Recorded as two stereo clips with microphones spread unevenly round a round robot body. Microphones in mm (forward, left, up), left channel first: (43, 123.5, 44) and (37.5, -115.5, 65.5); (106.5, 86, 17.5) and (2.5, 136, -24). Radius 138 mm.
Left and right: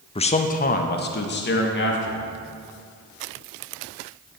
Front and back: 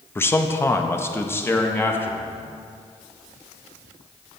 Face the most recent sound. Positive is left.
turn(degrees=55)